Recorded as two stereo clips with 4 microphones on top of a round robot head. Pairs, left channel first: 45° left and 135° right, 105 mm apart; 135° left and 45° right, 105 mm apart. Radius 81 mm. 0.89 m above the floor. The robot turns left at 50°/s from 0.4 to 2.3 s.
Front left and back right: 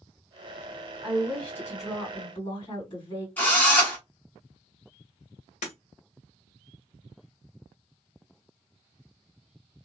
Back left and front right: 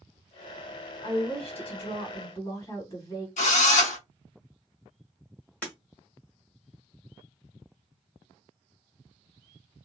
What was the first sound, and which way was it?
A woman speaking, 145° left.